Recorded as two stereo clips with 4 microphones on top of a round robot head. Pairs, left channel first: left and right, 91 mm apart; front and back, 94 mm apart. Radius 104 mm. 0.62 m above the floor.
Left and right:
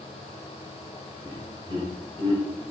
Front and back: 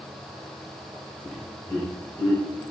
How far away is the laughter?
About 3.5 m.